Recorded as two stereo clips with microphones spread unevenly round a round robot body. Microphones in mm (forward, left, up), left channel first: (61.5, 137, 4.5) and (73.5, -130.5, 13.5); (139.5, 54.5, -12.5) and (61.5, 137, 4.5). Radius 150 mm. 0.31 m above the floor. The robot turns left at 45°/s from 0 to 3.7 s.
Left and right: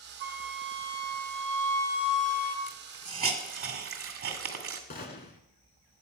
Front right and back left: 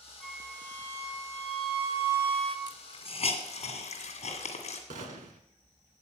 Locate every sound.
0.2 s a flute: 125° right, 0.7 m; by 2.6 s 130° left, 0.7 m
2.7 s a hiss: 5° right, 1.8 m; by 4.8 s 50° right, 1.8 m
4.9 s a gunshot: 155° left, 0.6 m